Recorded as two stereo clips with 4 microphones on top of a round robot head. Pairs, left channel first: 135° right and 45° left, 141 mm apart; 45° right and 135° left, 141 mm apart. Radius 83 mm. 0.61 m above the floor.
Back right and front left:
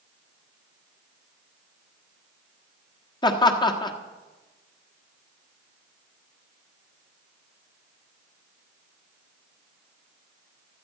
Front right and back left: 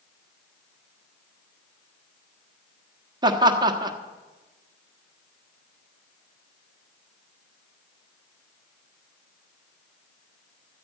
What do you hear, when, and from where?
3.2 s laughter: straight behind, 1.5 m